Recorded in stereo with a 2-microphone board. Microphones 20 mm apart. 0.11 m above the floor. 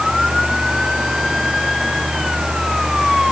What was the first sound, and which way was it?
Only background noise.